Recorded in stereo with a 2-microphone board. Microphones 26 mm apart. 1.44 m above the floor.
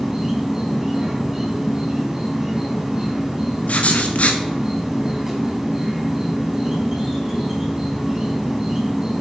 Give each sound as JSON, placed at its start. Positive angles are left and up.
{"t": 0.0, "sound": "an insect", "side_deg": -20, "distance_m": 3.5}
{"t": 3.7, "sound": "writing", "side_deg": 65, "distance_m": 1.4}